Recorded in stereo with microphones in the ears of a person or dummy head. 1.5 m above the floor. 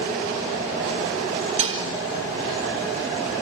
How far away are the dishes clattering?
About 1.9 m.